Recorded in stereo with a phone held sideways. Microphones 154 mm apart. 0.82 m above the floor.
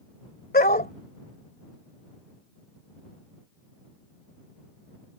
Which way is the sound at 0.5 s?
70° left (ahead or behind).